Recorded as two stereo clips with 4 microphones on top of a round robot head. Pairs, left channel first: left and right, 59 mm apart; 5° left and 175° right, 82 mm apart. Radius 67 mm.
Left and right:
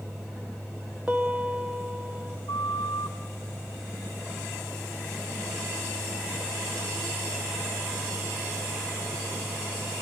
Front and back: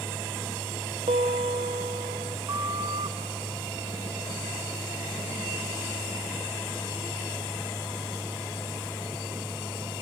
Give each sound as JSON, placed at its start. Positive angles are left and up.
{"t": 1.1, "sound": "a piano", "azimuth_deg": -170, "distance_m": 0.8}
{"t": 2.5, "sound": "a flute", "azimuth_deg": 140, "distance_m": 0.6}